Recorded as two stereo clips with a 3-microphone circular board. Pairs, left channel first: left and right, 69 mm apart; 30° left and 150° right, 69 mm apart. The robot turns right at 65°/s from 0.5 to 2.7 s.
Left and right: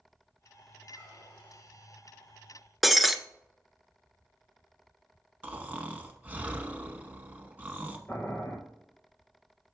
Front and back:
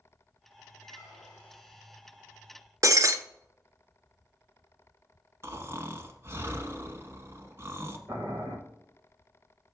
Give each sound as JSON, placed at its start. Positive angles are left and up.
{"t": 0.8, "sound": "a squeak", "azimuth_deg": 20, "distance_m": 2.5}
{"t": 2.8, "sound": "breaking glass", "azimuth_deg": 180, "distance_m": 0.5}
{"t": 5.4, "sound": "snoring", "azimuth_deg": -140, "distance_m": 0.9}
{"t": 8.1, "sound": "boiling", "azimuth_deg": 155, "distance_m": 1.8}